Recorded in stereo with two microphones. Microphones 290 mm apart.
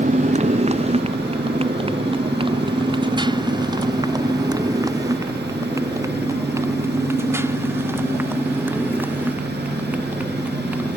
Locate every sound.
0.0 s a motorcycle: 25° right (ahead or behind); by 11.0 s 5° right (ahead or behind)